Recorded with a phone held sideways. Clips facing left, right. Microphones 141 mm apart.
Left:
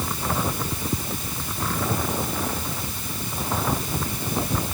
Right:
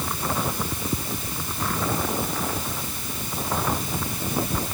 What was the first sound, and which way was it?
Only background noise.